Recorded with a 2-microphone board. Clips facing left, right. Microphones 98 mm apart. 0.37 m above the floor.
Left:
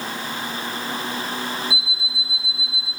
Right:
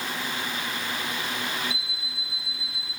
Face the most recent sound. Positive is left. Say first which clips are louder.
# left 7 dB
turn(degrees=65)  # may be behind; listen again after turning